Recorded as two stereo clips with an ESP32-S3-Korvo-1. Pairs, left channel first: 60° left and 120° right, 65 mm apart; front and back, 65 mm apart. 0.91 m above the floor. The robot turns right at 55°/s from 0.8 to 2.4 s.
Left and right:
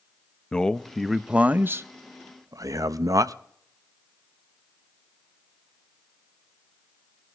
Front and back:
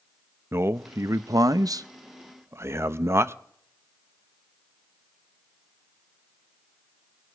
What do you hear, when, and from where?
0.5 s a man speaking: 135° left, 0.5 m; by 3.3 s 135° right, 0.5 m